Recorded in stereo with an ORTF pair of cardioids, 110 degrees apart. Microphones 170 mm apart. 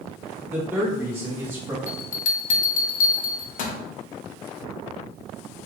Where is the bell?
55° left, 0.5 m.